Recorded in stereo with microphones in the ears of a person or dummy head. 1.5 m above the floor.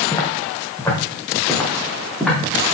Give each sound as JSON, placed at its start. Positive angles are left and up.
{"t": 0.1, "sound": "footsteps", "side_deg": 20, "distance_m": 4.5}